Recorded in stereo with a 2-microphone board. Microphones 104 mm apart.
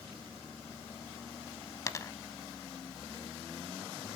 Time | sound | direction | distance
1.9 | a dropped coin | 30° left (ahead or behind) | 0.6 m